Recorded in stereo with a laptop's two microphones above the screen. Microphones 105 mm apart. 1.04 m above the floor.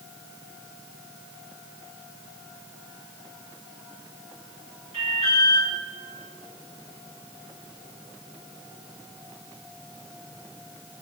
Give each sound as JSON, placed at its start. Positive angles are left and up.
{"t": 4.9, "sound": "an alarm", "side_deg": -80, "distance_m": 6.5}